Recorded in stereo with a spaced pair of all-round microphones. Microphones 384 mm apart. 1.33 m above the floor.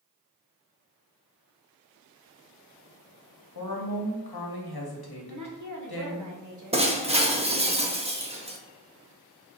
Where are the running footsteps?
No running footsteps in this recording.